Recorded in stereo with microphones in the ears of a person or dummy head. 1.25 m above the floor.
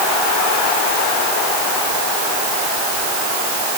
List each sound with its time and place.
Only background noise.